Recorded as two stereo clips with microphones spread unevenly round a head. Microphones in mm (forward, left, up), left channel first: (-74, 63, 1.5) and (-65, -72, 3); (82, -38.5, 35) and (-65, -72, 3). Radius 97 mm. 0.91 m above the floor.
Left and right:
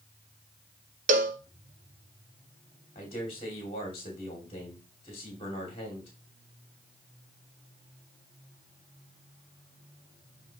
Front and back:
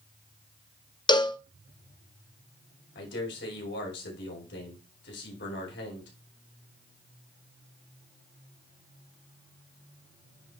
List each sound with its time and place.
1.1 s a cowbell: 45° right, 0.6 m
3.0 s a man speaking: 30° left, 2.5 m